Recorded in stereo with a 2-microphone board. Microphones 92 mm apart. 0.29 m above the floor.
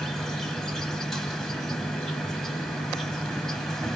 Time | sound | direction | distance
0.0 | an insect | 5° left (ahead or behind) | 0.8 m